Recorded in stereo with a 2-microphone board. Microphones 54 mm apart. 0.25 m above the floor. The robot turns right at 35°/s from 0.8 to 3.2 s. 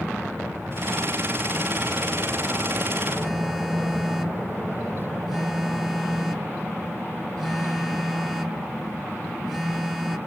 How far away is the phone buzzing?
About 1.4 m.